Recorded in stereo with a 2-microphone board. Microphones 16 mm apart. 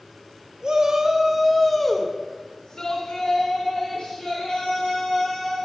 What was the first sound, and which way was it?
A shout, 45° right (ahead or behind).